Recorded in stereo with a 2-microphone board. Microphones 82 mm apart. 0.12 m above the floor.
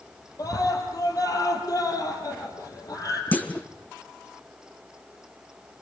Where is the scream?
50° left (ahead or behind), 3.5 m.